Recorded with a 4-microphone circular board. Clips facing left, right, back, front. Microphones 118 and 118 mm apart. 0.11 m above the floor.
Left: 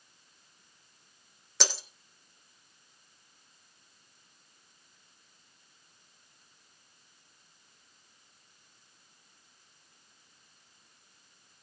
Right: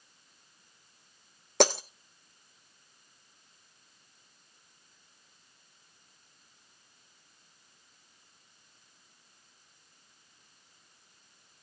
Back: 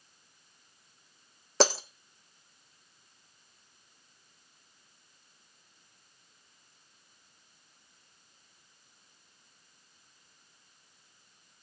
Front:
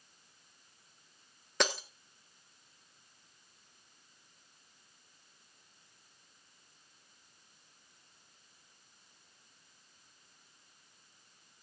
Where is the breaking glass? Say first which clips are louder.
Right 13 dB, back 7 dB; 125° right, 1.0 m.